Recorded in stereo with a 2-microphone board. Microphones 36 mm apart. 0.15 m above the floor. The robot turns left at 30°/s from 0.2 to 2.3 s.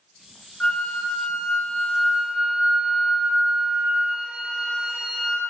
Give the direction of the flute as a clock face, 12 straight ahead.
10 o'clock.